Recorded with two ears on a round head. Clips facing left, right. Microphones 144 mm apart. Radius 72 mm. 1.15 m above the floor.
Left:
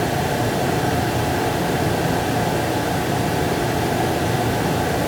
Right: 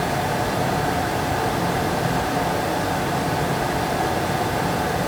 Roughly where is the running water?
Left.